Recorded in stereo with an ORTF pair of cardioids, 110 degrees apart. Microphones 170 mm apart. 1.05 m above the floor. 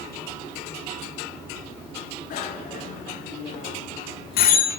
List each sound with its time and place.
2.3 s a bicycle bell: 60° left, 9.5 m; by 4.7 s 70° left, 8 m